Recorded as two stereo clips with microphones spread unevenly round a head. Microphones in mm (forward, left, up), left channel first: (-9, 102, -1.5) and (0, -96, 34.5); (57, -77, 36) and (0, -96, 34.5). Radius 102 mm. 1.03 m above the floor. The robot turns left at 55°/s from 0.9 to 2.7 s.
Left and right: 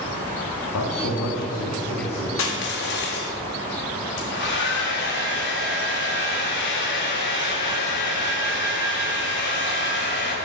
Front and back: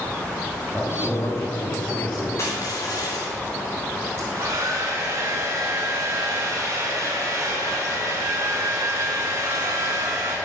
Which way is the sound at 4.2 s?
130° left.